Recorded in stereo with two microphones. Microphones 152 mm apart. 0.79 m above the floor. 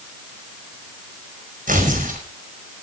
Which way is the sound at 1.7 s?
60° right (ahead or behind).